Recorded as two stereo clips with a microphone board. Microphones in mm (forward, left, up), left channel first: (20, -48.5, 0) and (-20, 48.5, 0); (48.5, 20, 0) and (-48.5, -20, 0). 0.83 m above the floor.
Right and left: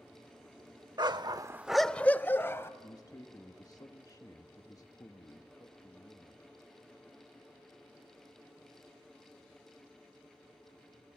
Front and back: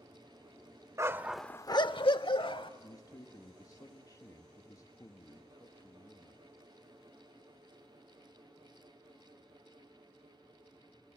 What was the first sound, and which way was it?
A dog barking, 150° left.